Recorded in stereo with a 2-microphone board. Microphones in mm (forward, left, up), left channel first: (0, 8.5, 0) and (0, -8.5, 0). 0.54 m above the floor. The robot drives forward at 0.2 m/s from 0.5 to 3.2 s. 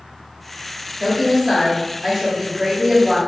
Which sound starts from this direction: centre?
A woman speaking, at 1.0 s.